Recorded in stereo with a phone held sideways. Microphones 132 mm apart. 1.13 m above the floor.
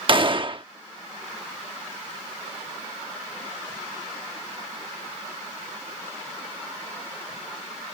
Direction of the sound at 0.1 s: 40° right (ahead or behind).